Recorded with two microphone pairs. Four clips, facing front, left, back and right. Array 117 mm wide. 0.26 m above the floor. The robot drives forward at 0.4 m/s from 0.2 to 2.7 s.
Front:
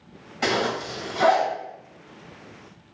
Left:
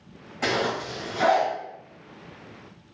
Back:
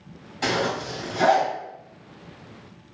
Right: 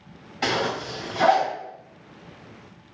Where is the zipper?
55° right, 1.5 m; by 1.5 s 100° right, 1.4 m.